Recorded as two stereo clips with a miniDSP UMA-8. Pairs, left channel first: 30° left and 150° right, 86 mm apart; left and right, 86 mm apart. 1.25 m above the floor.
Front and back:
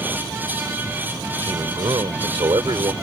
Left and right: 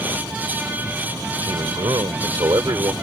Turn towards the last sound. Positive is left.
turn(degrees=-130)